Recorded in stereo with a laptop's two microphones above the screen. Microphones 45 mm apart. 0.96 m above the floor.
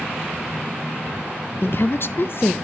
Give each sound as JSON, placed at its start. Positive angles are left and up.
{"t": 1.6, "sound": "a woman speaking", "side_deg": 55, "distance_m": 0.5}